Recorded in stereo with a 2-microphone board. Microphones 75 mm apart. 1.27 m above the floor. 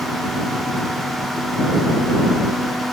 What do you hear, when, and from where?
Only background noise.